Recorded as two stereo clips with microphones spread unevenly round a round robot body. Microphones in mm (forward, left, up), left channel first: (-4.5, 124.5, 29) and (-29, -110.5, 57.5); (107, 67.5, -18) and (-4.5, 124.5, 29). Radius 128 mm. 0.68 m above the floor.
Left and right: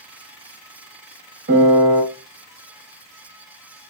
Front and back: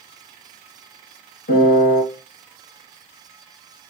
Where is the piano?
45° right, 1.0 m.